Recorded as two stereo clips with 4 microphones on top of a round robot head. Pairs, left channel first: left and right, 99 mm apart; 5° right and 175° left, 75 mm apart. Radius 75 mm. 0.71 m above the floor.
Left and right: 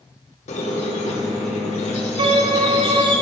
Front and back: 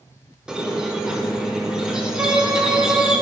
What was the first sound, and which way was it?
A squeak, 95° left.